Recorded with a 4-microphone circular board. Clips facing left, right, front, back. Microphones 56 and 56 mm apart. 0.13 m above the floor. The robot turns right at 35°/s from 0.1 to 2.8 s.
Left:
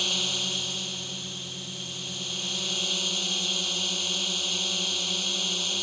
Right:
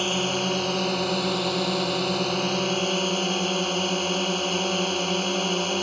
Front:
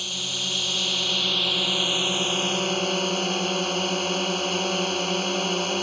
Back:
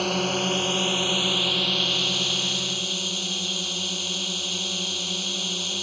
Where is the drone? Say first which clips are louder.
Right 7 dB, back 8 dB; 140° right; by 5.8 s 50° right.